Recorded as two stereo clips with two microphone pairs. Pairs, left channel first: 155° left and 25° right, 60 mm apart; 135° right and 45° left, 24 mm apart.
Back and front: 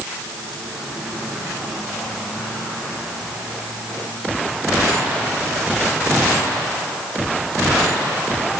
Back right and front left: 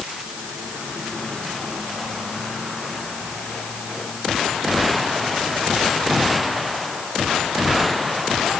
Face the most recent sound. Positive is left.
No sound to turn to.